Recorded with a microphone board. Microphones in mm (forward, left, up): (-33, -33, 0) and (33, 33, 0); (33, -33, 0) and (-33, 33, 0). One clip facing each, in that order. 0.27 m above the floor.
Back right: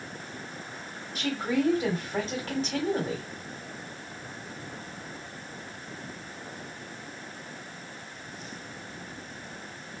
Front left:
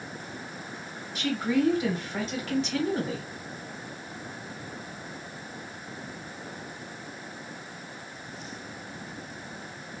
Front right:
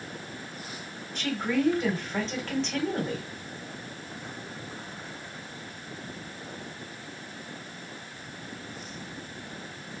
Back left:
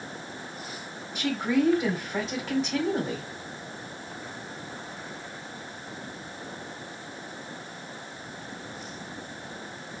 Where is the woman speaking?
145° right, 2 m.